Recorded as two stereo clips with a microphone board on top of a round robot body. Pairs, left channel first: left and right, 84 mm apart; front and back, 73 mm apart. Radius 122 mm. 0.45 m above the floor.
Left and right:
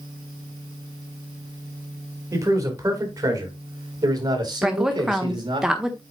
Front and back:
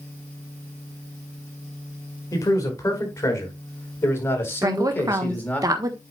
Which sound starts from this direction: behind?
A woman speaking, at 4.6 s.